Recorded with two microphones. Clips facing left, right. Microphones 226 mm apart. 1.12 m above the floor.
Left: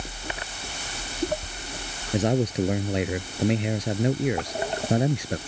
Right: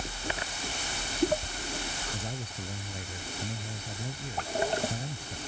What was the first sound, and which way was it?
A man speaking, 85° left.